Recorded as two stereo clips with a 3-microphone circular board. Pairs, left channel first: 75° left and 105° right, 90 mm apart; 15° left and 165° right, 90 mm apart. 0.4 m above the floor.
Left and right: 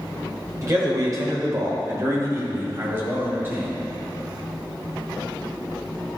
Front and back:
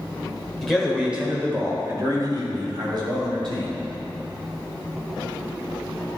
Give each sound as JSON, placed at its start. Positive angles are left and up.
{"t": 0.6, "sound": "a man speaking", "azimuth_deg": -70, "distance_m": 1.5}